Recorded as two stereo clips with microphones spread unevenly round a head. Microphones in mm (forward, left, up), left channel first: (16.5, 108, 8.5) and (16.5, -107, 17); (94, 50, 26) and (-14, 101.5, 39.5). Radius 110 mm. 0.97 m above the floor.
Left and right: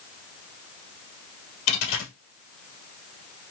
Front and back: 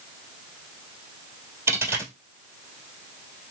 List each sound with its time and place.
1.7 s a dropped coin: 95° left, 1.7 m